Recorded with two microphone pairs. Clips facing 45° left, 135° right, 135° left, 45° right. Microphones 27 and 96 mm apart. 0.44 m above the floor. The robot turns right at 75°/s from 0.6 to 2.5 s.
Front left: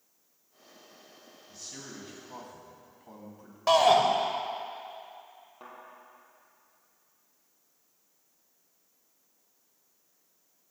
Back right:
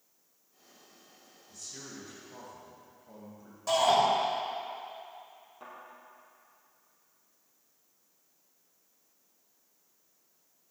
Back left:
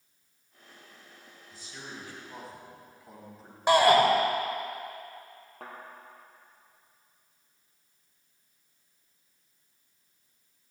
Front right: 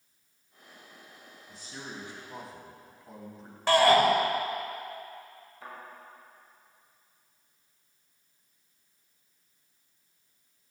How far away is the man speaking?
About 4 m.